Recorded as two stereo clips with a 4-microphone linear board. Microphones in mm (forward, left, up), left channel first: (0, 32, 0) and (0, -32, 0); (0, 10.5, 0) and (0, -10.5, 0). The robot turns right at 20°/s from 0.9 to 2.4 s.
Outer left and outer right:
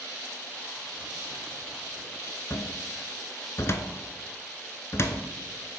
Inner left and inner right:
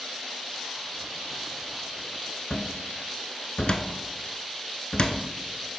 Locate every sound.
2.5 s a cupboard door: 45° left (ahead or behind), 0.6 m